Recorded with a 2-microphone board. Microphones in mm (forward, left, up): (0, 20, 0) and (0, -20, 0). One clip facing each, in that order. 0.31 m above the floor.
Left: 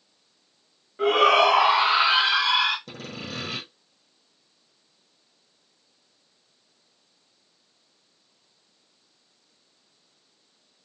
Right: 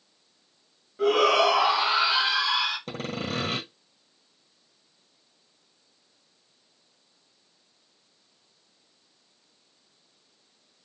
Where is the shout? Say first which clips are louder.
Left 3 dB; 35° left (ahead or behind), 1.5 m; by 2.8 s 60° left (ahead or behind), 2.5 m.